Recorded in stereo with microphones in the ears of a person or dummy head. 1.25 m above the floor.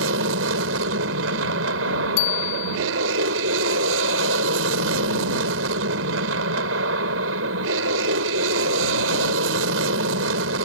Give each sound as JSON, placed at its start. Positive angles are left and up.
{"t": 0.0, "sound": "an aircraft", "side_deg": -70}
{"t": 2.2, "sound": "a bicycle bell", "side_deg": 65}